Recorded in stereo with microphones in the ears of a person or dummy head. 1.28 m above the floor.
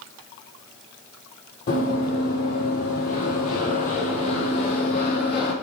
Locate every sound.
1.7 s running footsteps: 45° left (ahead or behind), 2.0 m; by 5.5 s 30° left (ahead or behind), 2.5 m